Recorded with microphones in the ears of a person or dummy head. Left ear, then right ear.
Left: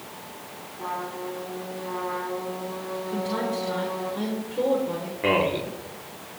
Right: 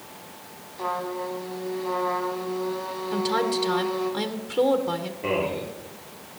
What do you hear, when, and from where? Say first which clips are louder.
0.8 s a trumpet: right 3 dB; 65° right (ahead or behind), 2 m
3.1 s a woman speaking: right 5 dB; 60° right (ahead or behind), 0.9 m
5.2 s a man speaking: left 5 dB; 45° left (ahead or behind), 3.5 m